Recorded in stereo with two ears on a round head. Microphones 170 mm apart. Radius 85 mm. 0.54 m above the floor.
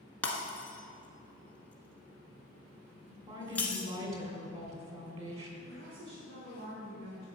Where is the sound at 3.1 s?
35° right (ahead or behind), 2.5 m.